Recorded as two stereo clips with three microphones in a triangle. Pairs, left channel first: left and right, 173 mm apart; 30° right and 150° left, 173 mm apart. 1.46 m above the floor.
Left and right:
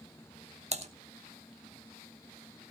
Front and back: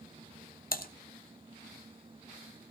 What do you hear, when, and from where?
0.7 s typing on a keyboard: 45° right, 1.0 m